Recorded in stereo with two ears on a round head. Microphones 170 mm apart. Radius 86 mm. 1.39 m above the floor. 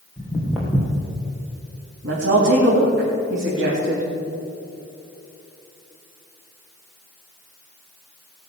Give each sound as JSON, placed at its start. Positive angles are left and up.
{"t": 0.2, "sound": "footsteps", "side_deg": 5, "distance_m": 3.5}
{"t": 2.0, "sound": "a woman speaking", "side_deg": -65, "distance_m": 3.0}